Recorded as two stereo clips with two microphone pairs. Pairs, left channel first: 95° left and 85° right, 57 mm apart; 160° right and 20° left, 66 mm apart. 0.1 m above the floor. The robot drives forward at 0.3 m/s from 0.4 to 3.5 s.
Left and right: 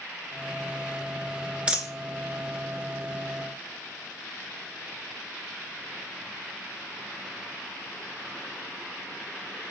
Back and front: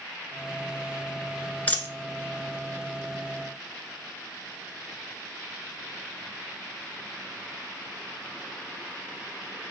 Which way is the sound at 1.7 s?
130° right.